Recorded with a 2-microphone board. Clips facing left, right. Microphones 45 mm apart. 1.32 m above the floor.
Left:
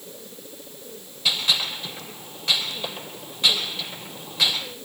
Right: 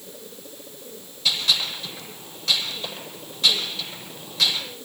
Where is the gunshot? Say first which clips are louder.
Even; 25° left (ahead or behind), 7.5 m.